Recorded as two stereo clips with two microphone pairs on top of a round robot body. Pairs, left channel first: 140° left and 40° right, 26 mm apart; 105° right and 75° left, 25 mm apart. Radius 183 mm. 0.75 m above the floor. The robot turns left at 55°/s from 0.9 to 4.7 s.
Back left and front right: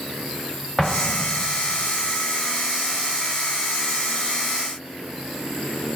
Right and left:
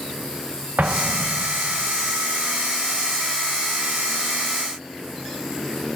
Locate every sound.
0.8 s an explosion: 60° left, 0.7 m; by 2.2 s 10° right, 0.7 m